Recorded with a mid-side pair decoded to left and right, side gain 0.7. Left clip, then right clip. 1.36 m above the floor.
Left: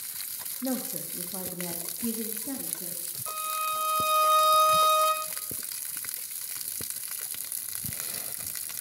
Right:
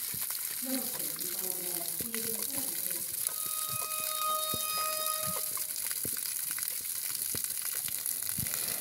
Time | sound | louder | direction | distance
0.6 | a woman speaking | left 6 dB | 50° left | 2.5 m
3.3 | a violin | left 12 dB | 65° left | 3 m